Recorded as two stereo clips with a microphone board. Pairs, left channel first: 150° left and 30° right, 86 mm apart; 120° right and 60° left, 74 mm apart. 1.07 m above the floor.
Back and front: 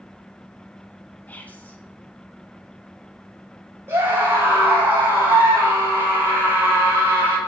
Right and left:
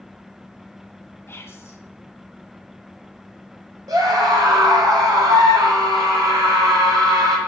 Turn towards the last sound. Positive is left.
turn(degrees=30)